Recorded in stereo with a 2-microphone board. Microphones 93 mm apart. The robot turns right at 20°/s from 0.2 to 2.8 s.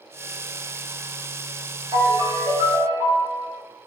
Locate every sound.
1.9 s a ringtone: 60° right (ahead or behind), 0.9 m; by 3.5 s 50° right (ahead or behind), 0.9 m